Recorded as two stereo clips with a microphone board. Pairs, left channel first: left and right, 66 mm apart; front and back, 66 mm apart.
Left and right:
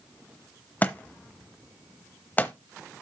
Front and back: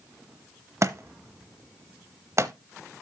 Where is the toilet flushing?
I don't hear a toilet flushing.